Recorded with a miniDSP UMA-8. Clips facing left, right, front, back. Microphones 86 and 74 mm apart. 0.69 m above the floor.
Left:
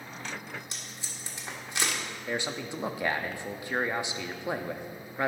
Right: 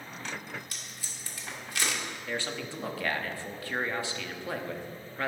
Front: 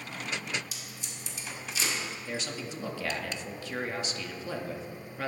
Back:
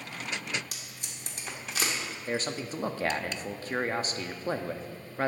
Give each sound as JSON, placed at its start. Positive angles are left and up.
{"t": 0.7, "sound": "tape being pulled", "azimuth_deg": 155, "distance_m": 1.8}
{"t": 2.3, "sound": "a man speaking", "azimuth_deg": 155, "distance_m": 0.7}